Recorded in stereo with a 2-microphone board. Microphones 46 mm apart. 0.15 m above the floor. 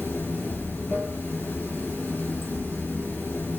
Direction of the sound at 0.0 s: 65° left (ahead or behind).